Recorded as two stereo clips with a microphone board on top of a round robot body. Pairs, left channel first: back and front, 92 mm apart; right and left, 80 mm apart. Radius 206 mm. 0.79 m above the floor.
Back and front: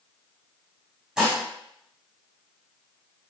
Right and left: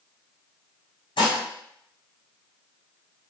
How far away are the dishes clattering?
About 1.5 m.